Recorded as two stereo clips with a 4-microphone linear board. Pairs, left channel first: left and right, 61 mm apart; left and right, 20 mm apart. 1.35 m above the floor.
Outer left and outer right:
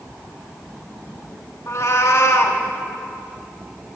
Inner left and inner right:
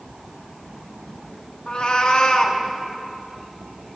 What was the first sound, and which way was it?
A cat meowing, 50° left (ahead or behind).